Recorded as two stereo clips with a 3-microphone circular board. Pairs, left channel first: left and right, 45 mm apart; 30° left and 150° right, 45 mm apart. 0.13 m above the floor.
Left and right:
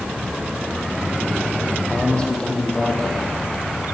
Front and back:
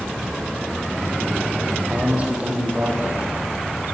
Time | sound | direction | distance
1.9 | a man speaking | 155° left | 6 m